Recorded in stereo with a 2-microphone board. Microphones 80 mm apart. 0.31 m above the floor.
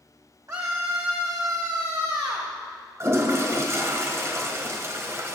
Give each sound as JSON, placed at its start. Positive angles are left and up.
{"t": 0.5, "sound": "a scream", "side_deg": -50, "distance_m": 2.0}
{"t": 3.0, "sound": "a toilet flushing", "side_deg": -35, "distance_m": 2.0}